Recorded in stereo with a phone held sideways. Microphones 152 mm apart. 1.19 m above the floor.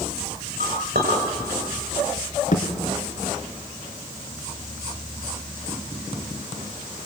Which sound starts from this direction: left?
A thud, at 2.5 s.